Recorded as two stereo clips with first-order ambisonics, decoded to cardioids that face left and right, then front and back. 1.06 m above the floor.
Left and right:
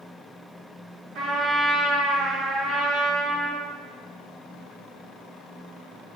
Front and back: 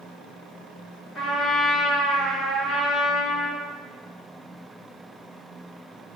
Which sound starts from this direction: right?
A trumpet, at 1.1 s.